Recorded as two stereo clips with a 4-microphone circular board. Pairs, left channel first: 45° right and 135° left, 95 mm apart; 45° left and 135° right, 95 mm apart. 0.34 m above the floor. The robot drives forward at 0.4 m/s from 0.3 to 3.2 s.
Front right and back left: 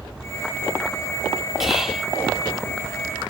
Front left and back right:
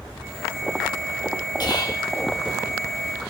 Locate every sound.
1.6 s whispering: 50° left, 1.5 m; by 2.1 s 55° left, 1.4 m